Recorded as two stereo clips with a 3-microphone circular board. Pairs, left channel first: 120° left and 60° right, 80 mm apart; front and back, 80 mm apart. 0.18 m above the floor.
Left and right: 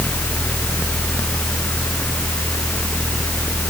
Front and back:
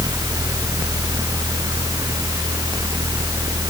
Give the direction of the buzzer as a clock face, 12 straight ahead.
I don't hear a buzzer.